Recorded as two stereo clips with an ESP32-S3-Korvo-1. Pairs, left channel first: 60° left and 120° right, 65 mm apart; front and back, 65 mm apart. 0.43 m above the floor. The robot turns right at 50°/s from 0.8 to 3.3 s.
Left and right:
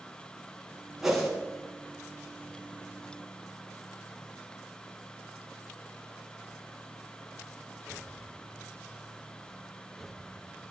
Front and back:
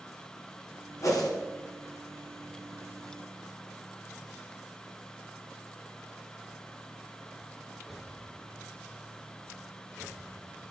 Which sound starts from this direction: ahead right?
A whoosh, at 1.0 s.